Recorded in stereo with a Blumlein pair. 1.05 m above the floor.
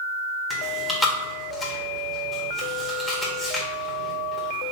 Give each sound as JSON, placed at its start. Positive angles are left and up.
{"t": 0.5, "sound": "chewing", "azimuth_deg": 5, "distance_m": 1.8}